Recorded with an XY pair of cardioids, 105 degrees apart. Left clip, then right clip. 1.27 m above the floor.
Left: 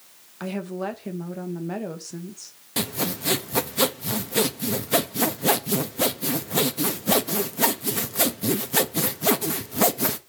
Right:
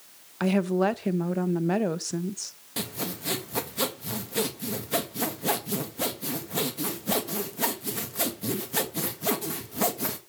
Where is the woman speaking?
45° right, 1.0 m.